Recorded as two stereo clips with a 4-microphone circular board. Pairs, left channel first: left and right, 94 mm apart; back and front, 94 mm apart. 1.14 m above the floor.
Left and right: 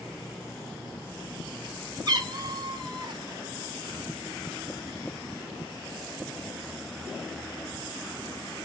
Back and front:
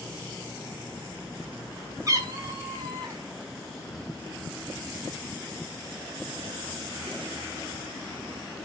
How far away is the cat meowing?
About 1.0 m.